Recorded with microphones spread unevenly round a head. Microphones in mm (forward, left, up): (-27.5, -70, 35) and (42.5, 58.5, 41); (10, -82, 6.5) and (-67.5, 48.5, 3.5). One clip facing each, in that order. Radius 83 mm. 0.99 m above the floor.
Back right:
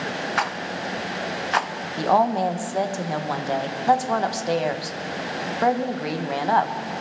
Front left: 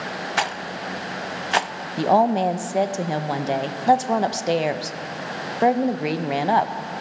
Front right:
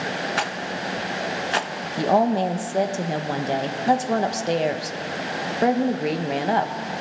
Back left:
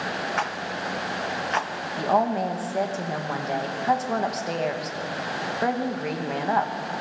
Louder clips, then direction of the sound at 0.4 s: Even, front right 2 dB; straight ahead.